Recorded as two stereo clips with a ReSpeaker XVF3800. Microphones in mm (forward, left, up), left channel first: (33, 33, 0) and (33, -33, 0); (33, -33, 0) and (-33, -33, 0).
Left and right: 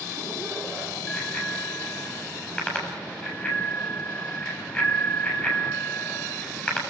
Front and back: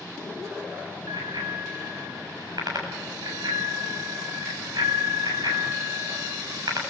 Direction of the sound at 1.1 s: 160° left.